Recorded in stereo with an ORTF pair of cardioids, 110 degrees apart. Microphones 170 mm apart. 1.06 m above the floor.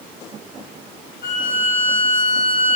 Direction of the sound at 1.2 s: 60° left.